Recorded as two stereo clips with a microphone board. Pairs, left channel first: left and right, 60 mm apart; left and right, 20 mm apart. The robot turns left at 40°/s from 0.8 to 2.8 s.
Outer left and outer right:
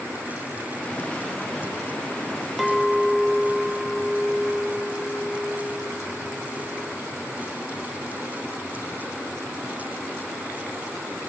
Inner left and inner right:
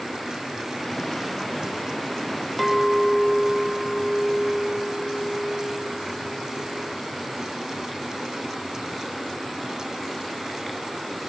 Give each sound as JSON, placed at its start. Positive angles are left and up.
{"t": 2.6, "sound": "a clink", "side_deg": 0, "distance_m": 0.6}